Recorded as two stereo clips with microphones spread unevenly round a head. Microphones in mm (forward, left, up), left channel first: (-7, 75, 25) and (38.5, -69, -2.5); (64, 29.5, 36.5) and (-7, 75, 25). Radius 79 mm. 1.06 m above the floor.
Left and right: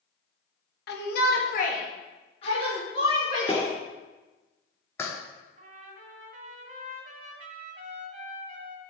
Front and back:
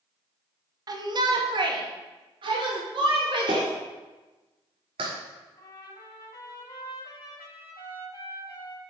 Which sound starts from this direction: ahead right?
A trumpet, at 5.6 s.